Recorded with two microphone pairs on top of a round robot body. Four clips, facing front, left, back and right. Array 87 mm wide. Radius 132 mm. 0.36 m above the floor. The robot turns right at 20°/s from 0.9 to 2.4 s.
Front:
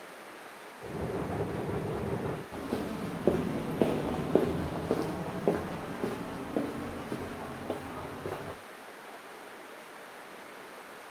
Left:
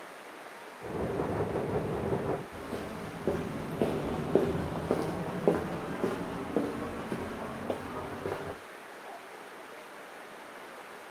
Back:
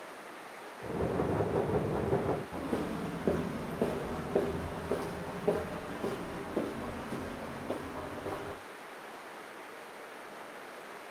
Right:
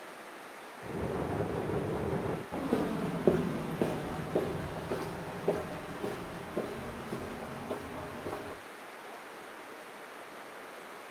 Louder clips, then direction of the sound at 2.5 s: Right 6 dB, even; 75° right.